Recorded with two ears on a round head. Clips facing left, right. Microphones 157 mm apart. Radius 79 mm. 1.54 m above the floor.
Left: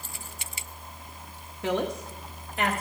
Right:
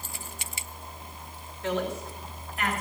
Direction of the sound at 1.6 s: 65° left (ahead or behind).